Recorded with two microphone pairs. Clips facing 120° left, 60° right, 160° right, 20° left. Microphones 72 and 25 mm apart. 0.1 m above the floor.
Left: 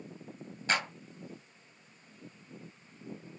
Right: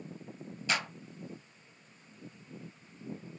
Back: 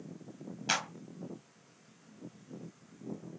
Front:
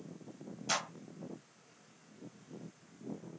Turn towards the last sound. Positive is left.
turn(degrees=160)